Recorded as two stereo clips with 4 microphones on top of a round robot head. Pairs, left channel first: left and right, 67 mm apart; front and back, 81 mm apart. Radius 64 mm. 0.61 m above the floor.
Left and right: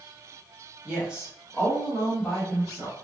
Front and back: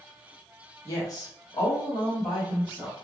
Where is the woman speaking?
30° right, 1.0 m; by 2.9 s 15° left, 1.9 m.